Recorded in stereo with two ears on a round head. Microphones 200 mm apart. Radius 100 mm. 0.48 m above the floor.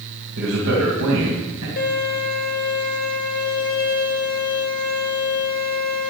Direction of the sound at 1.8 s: 40° left (ahead or behind).